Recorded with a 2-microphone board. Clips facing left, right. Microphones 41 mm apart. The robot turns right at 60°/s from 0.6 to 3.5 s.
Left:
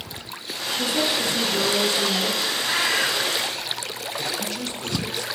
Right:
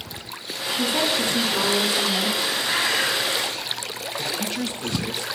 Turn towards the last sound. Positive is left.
turn(degrees=-15)  # may be behind; listen again after turning